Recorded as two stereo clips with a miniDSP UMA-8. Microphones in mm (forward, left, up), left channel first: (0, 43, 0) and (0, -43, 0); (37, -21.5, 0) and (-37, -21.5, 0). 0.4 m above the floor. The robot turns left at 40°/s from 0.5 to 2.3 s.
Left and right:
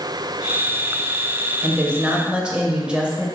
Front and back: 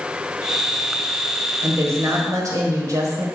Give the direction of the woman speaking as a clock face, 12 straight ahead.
5 o'clock.